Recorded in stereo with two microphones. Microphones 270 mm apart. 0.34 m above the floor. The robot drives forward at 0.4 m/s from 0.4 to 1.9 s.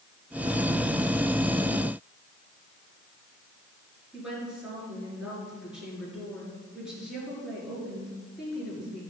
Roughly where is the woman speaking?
Centre.